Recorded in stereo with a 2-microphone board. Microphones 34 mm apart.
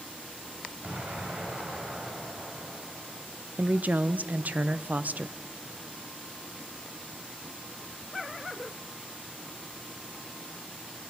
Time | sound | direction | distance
0.8 | an explosion | 50° right (ahead or behind) | 4.5 m
3.6 | a woman speaking | 55° right (ahead or behind) | 0.7 m